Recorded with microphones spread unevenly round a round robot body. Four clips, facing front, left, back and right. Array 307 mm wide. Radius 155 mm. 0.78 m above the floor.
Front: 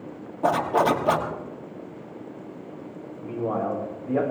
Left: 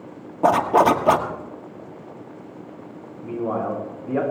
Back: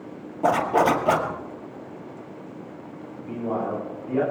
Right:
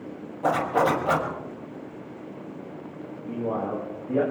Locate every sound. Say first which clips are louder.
0.4 s a zipper: left 6 dB, back 1 dB; 100° left, 1.5 m
3.2 s a man speaking: left 4 dB, front 1 dB; 75° left, 9.5 m